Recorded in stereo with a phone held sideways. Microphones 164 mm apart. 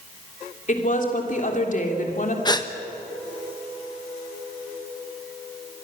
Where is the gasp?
25° left (ahead or behind), 1.2 m.